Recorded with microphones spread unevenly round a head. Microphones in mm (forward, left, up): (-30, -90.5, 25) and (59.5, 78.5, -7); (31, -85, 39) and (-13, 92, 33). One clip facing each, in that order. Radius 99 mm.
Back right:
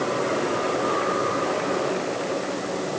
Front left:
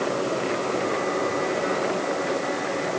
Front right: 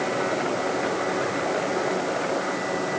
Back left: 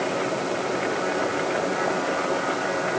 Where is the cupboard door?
No cupboard door in this recording.